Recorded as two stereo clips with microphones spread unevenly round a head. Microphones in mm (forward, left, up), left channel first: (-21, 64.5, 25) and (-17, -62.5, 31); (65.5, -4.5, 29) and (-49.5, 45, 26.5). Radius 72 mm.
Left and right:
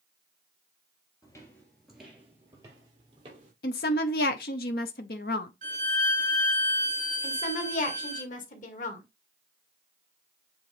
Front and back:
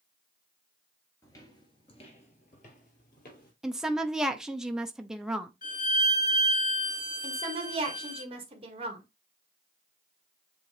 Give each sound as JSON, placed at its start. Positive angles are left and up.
{"t": 1.2, "sound": "footsteps", "azimuth_deg": 30, "distance_m": 2.0}
{"t": 3.6, "sound": "a woman speaking", "azimuth_deg": 70, "distance_m": 0.7}
{"t": 5.6, "sound": "a violin", "azimuth_deg": -55, "distance_m": 4.5}
{"t": 7.2, "sound": "a woman speaking", "azimuth_deg": 115, "distance_m": 1.8}